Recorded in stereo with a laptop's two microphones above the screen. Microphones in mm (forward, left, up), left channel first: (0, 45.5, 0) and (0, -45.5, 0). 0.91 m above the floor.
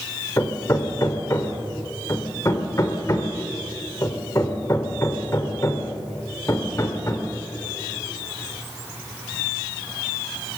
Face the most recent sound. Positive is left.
turn(degrees=35)  # may be behind; listen again after turning